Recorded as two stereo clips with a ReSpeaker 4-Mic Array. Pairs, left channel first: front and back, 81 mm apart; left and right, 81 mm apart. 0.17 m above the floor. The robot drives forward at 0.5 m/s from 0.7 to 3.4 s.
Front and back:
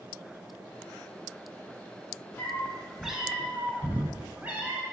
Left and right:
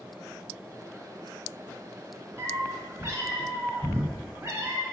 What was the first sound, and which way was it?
A cat meowing, 55° right.